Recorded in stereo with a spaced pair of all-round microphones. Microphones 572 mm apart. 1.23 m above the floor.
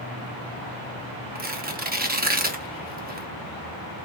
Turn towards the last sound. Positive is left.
turn(degrees=-15)  # may be behind; listen again after turning